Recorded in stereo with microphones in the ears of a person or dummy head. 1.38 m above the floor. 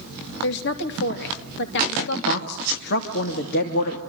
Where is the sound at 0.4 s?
70° left (ahead or behind), 3 m.